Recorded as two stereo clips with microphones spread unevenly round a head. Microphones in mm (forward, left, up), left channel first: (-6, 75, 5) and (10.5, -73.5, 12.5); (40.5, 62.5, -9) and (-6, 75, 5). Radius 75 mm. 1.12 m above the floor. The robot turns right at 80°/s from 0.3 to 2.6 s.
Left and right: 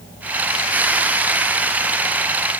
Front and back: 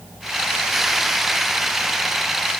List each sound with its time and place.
Only background noise.